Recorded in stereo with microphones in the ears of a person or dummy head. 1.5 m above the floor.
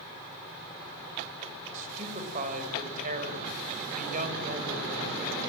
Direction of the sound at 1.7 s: 45° right (ahead or behind).